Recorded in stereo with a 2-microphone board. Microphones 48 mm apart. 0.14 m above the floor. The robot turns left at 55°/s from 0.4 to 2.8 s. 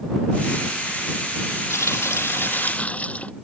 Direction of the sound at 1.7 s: 95° left.